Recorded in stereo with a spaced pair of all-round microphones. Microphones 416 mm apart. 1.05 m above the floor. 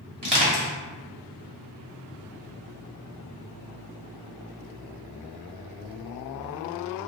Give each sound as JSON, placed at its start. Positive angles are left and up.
{"t": 0.2, "sound": "crushing", "side_deg": -65, "distance_m": 1.3}